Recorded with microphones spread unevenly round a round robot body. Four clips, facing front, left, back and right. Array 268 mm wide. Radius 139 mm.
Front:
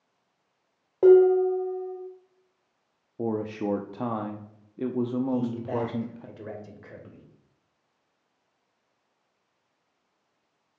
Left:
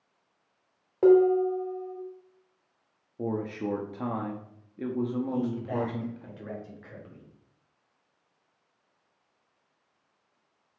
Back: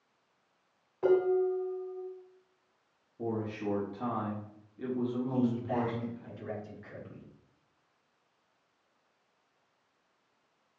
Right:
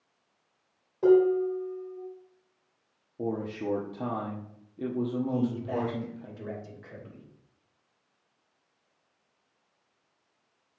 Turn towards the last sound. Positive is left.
turn(degrees=-5)